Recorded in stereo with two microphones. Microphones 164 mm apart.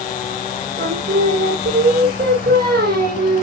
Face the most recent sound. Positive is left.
turn(degrees=-85)